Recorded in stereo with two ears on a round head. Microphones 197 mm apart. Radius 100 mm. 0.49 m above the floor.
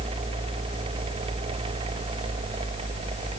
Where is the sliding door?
No sliding door in this recording.